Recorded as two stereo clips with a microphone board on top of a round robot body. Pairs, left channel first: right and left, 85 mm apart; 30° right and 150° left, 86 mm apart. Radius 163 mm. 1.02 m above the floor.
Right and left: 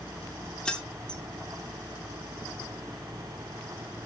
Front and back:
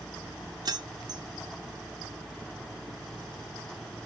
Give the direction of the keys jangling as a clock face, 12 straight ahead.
6 o'clock.